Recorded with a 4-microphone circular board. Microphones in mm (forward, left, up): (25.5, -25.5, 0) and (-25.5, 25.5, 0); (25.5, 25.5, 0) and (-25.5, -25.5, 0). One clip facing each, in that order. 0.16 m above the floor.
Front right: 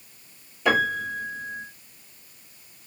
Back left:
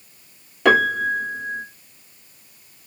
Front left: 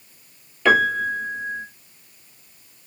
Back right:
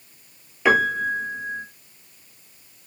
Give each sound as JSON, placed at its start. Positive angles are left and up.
{"t": 0.7, "sound": "a piano", "azimuth_deg": 150, "distance_m": 1.0}